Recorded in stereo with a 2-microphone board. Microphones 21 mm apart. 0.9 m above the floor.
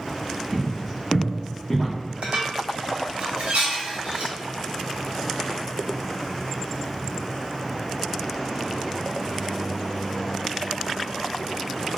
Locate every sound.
0.5 s footsteps: 5° left (ahead or behind), 1.6 m; by 1.9 s 25° left (ahead or behind), 1.1 m
2.2 s dishes clattering: 80° right, 0.9 m